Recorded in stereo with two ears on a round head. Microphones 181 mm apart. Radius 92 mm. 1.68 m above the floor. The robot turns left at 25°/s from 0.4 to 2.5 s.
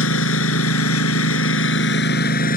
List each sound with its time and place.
0.0 s a lawn mower: 95° left; by 2.6 s 45° left